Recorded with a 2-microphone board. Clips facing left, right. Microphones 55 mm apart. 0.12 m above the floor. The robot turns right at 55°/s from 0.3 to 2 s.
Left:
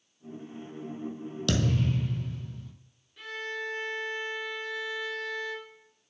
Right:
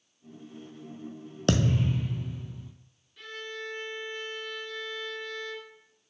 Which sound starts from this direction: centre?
A violin, at 3.2 s.